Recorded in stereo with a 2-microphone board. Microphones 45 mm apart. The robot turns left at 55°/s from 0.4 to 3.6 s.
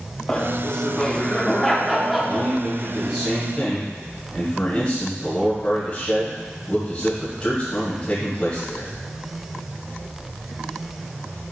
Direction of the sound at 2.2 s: 125° right.